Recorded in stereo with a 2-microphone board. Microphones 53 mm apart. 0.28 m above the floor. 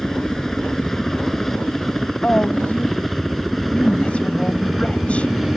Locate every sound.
0.0 s a helicopter: 5° left (ahead or behind); by 5.6 s centre (ahead or behind)
2.2 s a woman speaking: 25° left (ahead or behind)